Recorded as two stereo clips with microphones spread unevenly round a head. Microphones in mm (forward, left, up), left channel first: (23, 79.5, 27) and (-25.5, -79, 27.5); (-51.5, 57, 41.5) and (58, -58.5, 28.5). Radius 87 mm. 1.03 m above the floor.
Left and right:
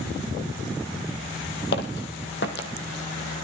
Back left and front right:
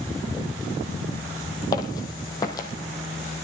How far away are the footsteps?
About 1.7 m.